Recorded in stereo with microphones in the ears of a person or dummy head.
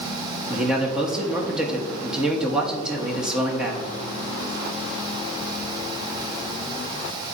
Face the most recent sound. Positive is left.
turn(degrees=-5)  # may be behind; listen again after turning